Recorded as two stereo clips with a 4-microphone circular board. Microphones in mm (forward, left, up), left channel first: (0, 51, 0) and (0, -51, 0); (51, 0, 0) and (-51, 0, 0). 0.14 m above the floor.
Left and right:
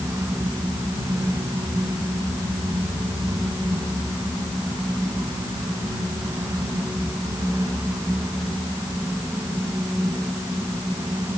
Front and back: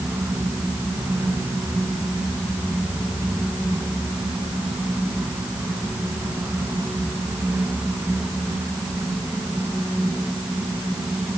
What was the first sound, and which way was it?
Only background noise.